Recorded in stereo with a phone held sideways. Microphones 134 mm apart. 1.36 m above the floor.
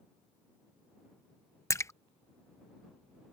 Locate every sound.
1.7 s a splash: 20° left (ahead or behind)